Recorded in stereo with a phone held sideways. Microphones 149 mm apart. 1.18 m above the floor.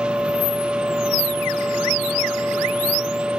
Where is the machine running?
5° right (ahead or behind), 0.9 m.